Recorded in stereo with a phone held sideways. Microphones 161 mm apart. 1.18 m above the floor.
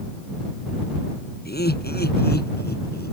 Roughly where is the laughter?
Left.